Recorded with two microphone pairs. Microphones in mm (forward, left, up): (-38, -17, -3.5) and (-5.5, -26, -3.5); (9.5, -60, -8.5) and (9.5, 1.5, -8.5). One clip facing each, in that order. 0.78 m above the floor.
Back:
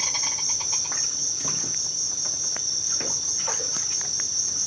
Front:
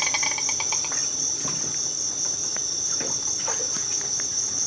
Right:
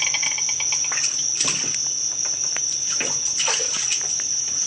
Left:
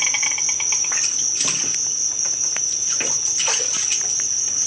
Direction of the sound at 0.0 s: 10° left.